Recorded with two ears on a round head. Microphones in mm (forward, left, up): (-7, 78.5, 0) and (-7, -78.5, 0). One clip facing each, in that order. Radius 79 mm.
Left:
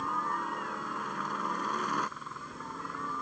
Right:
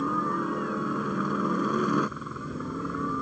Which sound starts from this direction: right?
A helicopter, at 0.0 s.